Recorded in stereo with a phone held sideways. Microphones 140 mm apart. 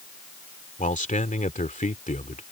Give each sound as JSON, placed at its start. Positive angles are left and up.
{"t": 0.8, "sound": "a man speaking", "side_deg": 65}